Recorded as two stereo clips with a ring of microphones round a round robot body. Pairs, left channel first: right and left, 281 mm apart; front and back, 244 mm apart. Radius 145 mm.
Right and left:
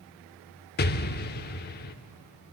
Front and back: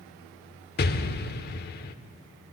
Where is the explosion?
40° right, 0.8 m.